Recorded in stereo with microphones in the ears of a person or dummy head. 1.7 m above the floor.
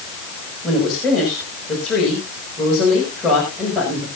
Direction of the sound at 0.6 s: Centre (ahead or behind).